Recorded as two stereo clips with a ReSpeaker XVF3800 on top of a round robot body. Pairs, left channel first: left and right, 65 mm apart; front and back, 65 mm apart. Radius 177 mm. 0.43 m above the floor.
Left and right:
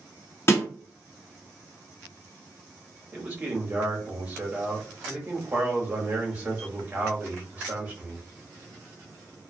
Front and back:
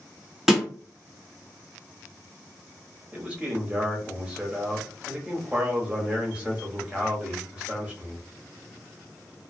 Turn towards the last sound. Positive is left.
turn(degrees=-130)